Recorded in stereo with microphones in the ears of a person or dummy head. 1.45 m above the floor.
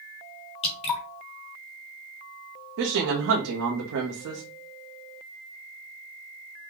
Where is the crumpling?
I don't hear crumpling.